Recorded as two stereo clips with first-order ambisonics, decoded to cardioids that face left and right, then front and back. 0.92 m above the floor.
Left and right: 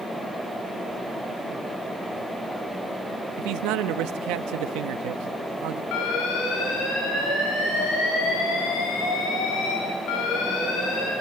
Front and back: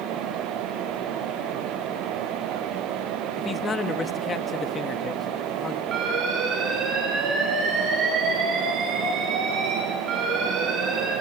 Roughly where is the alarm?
Behind left.